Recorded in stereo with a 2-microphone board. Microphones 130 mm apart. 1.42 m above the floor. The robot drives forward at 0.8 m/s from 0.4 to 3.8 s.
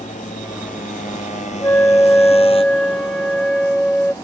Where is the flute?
15° left (ahead or behind); by 4.1 s 5° left (ahead or behind).